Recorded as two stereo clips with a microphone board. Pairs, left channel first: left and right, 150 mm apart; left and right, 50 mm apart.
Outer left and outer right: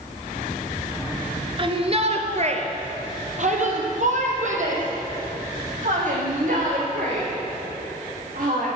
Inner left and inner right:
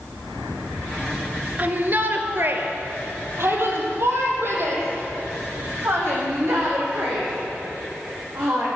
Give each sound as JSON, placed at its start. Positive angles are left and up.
{"t": 1.6, "sound": "a shout", "side_deg": -35, "distance_m": 1.4}